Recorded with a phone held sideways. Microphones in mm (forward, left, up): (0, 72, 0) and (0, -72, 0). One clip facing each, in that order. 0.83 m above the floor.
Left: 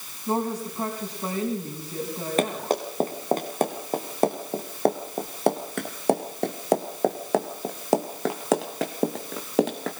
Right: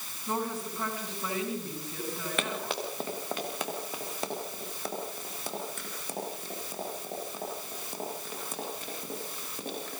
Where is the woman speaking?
30° left (ahead or behind), 6 m.